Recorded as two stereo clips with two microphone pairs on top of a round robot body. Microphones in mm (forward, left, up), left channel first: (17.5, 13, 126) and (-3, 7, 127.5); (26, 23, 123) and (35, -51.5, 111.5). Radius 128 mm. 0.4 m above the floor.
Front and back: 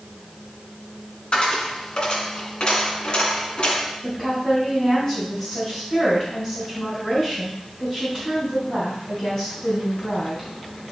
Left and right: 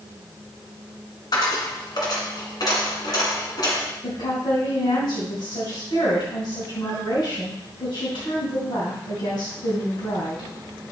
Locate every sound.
1.3 s a dropped coin: 60° left, 1.6 m
4.0 s a woman speaking: 80° left, 3 m